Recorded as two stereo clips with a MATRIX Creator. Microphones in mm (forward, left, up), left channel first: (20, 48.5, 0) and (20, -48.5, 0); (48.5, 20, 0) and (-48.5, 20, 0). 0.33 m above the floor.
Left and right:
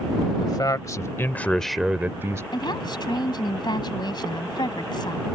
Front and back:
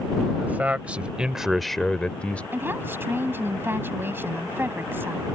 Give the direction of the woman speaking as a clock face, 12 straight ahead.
8 o'clock.